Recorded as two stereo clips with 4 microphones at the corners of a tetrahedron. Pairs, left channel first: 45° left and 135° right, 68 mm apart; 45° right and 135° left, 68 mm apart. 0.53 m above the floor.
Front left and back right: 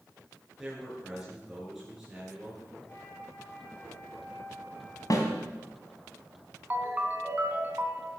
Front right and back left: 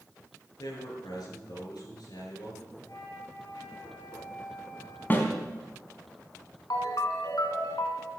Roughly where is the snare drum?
Ahead.